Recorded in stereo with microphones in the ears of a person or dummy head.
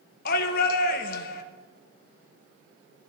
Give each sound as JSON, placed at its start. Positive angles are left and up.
{"t": 0.2, "sound": "a shout", "side_deg": 50, "distance_m": 1.9}